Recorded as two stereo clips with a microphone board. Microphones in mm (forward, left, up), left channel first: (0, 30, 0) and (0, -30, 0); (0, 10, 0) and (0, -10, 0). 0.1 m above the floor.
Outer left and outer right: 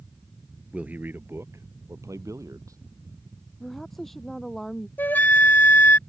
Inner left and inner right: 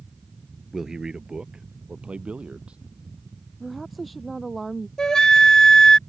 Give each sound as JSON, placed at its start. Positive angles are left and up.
{"t": 0.7, "sound": "a man speaking", "side_deg": -20}
{"t": 3.6, "sound": "a woman speaking", "side_deg": 5}
{"t": 5.0, "sound": "a flute", "side_deg": 35}